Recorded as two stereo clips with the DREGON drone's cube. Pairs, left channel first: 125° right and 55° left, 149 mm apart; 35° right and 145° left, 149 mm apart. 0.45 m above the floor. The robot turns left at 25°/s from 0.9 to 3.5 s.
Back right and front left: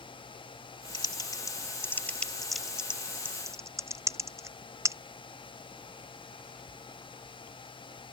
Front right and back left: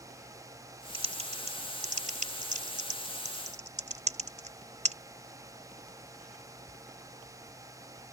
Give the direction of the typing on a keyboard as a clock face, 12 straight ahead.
6 o'clock.